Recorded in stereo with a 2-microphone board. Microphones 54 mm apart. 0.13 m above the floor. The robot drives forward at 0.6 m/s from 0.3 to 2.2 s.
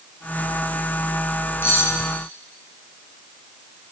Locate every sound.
1.6 s cutlery clinking: 40° left (ahead or behind), 4 m